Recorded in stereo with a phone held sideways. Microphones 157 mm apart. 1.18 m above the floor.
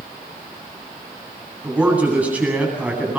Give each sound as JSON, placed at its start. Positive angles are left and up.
{"t": 1.6, "sound": "a man speaking", "side_deg": -10, "distance_m": 9.0}